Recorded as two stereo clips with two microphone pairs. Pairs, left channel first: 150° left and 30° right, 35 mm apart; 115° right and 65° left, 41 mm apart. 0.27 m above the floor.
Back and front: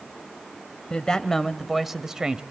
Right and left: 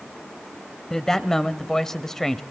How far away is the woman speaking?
About 1.0 m.